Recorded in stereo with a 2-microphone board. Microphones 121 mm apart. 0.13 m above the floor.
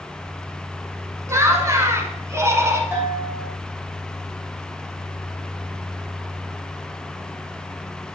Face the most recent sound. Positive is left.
turn(degrees=-15)  # may be behind; listen again after turning